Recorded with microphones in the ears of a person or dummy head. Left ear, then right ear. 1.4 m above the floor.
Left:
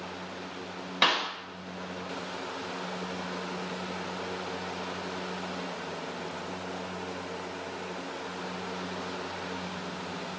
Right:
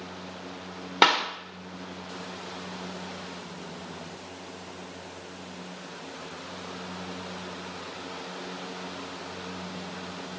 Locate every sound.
1.0 s a clap: 30° right (ahead or behind), 0.7 m